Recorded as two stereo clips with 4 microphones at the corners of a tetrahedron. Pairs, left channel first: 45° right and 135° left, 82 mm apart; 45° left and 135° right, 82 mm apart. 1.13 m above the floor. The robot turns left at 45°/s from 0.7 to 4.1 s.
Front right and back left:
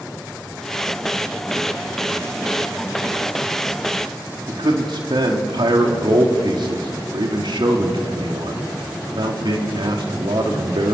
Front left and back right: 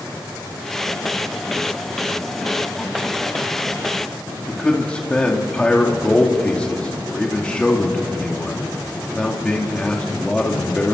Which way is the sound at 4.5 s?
120° left.